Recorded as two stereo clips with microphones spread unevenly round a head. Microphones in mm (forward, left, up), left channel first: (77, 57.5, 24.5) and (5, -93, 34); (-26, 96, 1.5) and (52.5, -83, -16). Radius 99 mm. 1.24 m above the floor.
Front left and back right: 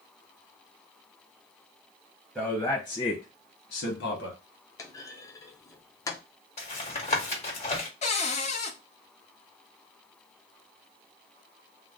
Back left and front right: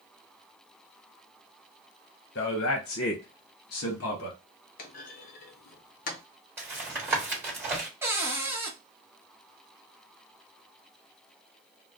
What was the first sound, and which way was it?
A man speaking, 155° left.